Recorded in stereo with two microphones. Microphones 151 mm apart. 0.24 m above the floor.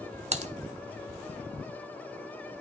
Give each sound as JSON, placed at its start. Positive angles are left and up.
{"t": 0.3, "sound": "typing on a keyboard", "side_deg": -55, "distance_m": 0.5}